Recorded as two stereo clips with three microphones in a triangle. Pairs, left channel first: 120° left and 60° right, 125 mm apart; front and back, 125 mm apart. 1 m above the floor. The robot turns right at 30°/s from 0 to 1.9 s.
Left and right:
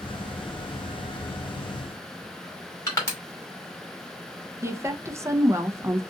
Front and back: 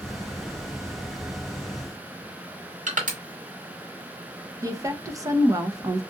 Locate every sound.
2.9 s crushing: 175° right, 1.7 m
4.6 s a woman speaking: 125° right, 0.6 m